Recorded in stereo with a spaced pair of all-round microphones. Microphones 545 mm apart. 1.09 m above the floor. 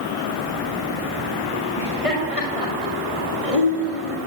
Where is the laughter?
75° left (ahead or behind), 6 m; by 4.2 s 70° left (ahead or behind), 3 m.